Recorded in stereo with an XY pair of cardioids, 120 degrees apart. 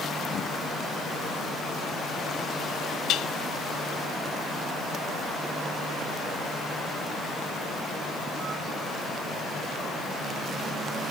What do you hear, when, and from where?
3.1 s dishes clattering: 70° left